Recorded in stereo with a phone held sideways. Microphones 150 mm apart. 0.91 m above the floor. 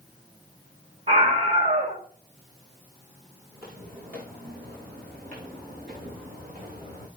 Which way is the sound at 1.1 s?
45° right (ahead or behind).